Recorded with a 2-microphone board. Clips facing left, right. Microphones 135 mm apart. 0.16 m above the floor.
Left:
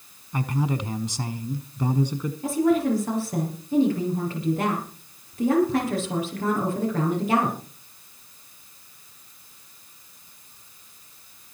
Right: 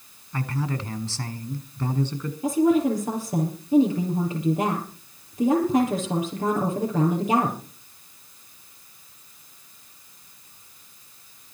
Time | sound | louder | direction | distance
0.3 | a man speaking | left 3 dB | 15° left (ahead or behind) | 1.1 m
2.4 | a woman speaking | right 2 dB | 20° right (ahead or behind) | 4.5 m